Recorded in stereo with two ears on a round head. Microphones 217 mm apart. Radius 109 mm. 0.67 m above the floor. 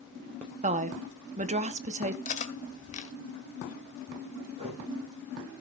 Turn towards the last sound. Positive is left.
turn(degrees=-25)  # may be behind; listen again after turning